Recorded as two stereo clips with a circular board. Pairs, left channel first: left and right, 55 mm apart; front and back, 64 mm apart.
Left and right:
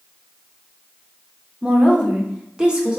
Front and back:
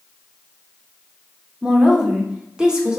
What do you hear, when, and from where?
1.6 s a woman speaking: 125° right, 0.9 m